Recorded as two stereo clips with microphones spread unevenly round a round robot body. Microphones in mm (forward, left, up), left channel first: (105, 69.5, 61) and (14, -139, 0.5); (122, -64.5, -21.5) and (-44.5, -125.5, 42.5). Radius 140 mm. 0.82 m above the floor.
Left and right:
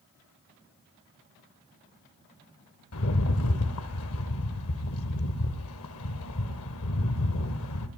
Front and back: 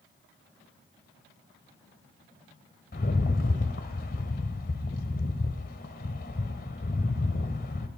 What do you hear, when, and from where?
2.9 s a rattle: 85° left, 1.0 m